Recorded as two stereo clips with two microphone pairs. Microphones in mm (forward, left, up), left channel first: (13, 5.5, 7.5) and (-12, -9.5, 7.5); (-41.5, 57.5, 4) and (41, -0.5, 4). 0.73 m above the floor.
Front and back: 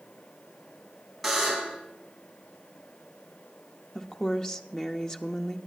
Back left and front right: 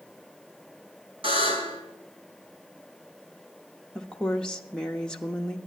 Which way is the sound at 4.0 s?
70° left.